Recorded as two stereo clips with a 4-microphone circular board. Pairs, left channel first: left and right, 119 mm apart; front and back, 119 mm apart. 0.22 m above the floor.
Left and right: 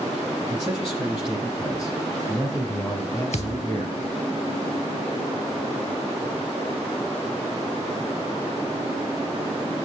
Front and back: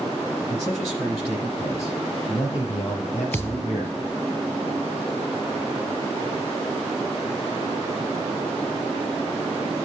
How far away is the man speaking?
About 9.5 m.